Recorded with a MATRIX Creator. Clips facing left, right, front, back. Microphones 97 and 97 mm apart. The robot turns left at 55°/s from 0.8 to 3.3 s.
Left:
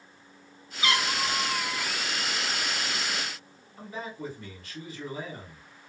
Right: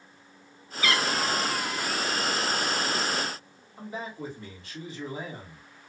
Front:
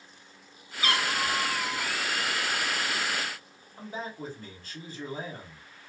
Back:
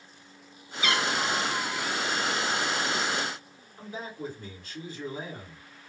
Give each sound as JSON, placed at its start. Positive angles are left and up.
{"t": 0.8, "sound": "a cat meowing", "azimuth_deg": 35, "distance_m": 0.6}
{"t": 3.8, "sound": "a man speaking", "azimuth_deg": -35, "distance_m": 2.0}